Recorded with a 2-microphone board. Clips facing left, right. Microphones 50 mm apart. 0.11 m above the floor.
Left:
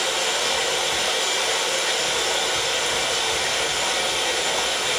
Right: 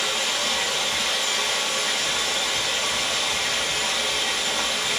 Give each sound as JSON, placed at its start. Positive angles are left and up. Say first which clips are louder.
{"t": 0.0, "sound": "running water", "louder": "left 2 dB", "side_deg": 60, "distance_m": 1.8}